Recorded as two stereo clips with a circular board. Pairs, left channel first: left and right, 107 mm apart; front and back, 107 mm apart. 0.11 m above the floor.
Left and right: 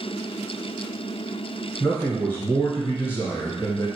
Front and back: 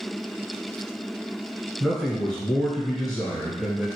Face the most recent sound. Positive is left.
turn(degrees=75)